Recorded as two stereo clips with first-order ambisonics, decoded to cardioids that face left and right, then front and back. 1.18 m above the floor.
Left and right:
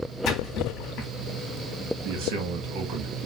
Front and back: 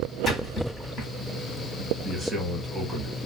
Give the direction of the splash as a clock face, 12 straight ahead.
10 o'clock.